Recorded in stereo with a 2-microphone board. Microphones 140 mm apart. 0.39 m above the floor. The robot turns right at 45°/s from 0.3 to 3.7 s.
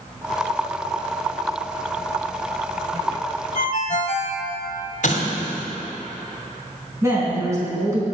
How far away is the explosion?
About 1.9 m.